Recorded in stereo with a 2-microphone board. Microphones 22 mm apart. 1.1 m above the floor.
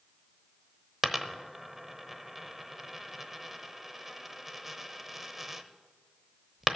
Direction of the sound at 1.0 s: 10° right (ahead or behind).